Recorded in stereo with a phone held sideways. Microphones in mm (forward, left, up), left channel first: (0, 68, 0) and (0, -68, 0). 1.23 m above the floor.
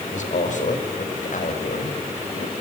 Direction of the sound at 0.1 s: 65° left (ahead or behind).